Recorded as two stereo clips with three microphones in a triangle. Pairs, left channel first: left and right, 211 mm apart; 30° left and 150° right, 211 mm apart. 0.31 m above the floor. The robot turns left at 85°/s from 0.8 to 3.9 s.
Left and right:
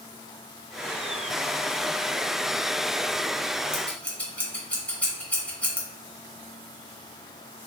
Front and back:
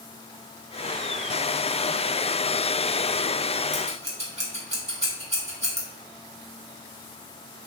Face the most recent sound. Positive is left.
turn(degrees=170)